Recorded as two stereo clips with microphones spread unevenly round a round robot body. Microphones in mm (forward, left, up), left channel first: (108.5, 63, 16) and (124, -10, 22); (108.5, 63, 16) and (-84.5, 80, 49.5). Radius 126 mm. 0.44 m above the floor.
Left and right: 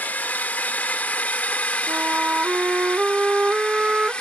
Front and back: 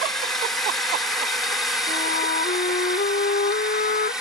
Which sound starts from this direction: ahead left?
A drone, at 0.0 s.